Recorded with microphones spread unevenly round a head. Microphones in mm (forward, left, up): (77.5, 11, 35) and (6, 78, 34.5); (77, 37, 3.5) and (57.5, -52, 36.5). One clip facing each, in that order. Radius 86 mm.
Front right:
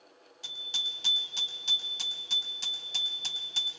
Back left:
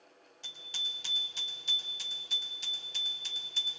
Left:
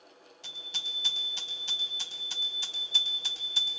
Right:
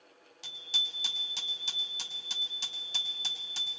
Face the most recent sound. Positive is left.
turn(degrees=-80)